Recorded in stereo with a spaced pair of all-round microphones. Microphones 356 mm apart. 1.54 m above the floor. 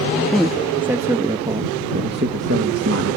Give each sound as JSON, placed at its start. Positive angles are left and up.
{"t": 0.2, "sound": "a man speaking", "side_deg": 5}